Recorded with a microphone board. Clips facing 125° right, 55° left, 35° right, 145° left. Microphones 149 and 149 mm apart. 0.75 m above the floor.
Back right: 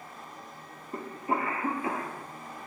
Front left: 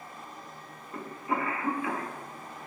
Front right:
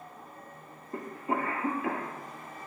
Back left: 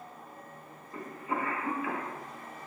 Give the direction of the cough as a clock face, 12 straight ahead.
2 o'clock.